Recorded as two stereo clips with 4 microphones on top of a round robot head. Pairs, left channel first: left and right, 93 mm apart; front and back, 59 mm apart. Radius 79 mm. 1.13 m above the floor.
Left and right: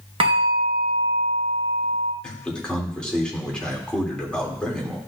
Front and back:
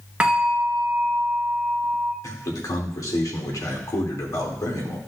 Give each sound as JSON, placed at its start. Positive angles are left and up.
{"t": 0.2, "sound": "a bell", "azimuth_deg": -105, "distance_m": 0.8}
{"t": 2.2, "sound": "a man speaking", "azimuth_deg": 10, "distance_m": 2.5}